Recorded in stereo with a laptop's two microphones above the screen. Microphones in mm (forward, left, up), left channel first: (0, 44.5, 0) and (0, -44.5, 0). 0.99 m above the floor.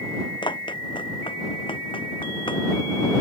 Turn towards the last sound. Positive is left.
turn(degrees=65)  # may be behind; listen again after turning